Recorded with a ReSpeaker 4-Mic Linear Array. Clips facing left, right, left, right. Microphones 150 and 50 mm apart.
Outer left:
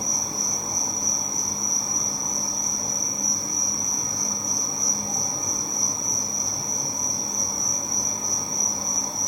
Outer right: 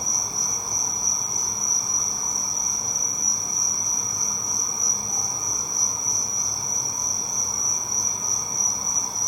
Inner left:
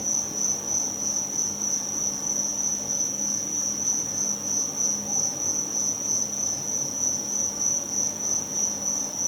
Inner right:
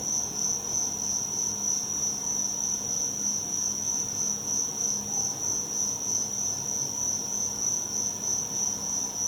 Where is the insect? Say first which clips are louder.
Outer left 3 dB, inner left 3 dB; 80° left, 1.2 m.